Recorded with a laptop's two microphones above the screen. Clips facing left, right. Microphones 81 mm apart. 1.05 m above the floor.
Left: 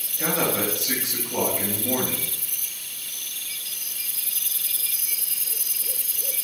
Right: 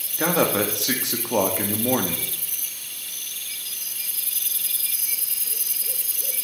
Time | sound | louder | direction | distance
0.2 | a man speaking | right 4 dB | 70° right (ahead or behind) | 1.6 m